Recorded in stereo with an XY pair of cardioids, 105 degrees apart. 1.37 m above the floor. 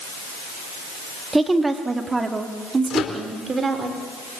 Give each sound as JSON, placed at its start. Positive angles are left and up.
{"t": 1.3, "sound": "a woman speaking", "azimuth_deg": -15, "distance_m": 3.0}
{"t": 2.9, "sound": "a microwave", "azimuth_deg": 65, "distance_m": 3.0}